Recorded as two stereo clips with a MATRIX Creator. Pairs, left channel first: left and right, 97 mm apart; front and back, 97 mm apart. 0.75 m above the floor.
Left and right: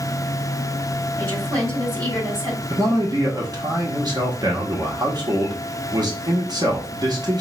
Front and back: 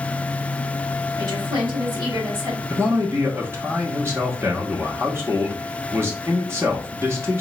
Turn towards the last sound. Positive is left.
turn(degrees=-120)